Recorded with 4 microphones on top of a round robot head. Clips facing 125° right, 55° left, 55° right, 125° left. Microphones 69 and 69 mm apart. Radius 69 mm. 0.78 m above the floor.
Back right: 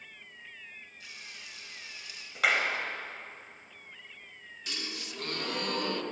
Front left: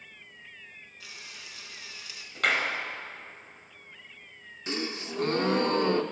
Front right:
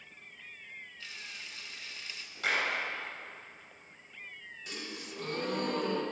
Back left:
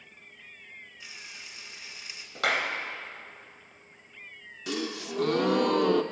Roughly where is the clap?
Behind left.